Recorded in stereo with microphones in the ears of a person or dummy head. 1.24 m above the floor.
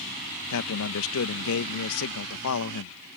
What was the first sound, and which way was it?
A man speaking, 70° left (ahead or behind).